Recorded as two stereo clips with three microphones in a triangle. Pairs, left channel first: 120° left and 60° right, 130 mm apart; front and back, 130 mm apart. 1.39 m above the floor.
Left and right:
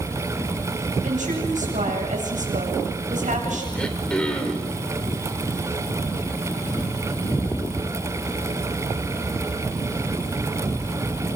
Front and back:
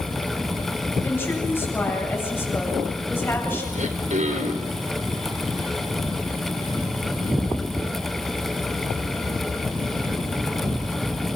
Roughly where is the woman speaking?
Right.